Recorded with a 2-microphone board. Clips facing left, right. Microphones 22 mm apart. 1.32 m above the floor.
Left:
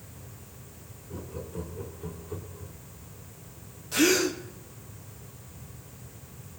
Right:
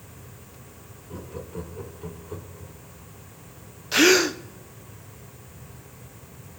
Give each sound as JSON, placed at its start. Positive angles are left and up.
{"t": 1.1, "sound": "laughter", "side_deg": -30, "distance_m": 2.5}
{"t": 3.9, "sound": "a gasp", "side_deg": -45, "distance_m": 0.7}